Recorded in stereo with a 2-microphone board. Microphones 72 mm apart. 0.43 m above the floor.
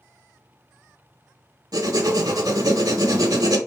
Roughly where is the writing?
Right.